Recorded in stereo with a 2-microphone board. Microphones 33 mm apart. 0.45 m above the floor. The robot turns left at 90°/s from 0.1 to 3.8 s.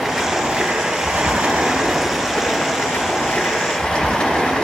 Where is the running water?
5° right, 2.5 m; by 4.6 s 25° left, 2.5 m.